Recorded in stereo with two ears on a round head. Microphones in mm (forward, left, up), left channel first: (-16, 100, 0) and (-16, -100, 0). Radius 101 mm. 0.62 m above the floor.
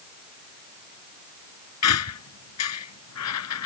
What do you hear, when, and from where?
1.8 s a squeak: 75° left (ahead or behind)